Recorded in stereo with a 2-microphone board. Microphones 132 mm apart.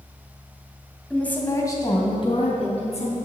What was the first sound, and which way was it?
A woman speaking, 5° left (ahead or behind).